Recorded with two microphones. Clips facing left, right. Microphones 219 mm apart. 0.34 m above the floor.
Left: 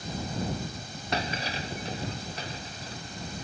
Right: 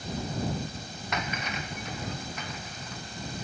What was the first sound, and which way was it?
Breaking glass, 30° left (ahead or behind).